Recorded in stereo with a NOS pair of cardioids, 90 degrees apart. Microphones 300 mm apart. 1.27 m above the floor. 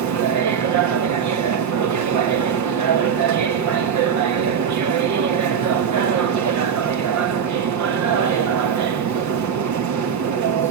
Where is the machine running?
70° right, 1.4 m.